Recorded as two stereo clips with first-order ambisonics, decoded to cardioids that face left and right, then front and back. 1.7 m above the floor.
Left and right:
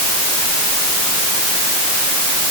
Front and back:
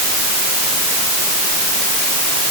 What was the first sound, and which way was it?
Only background noise.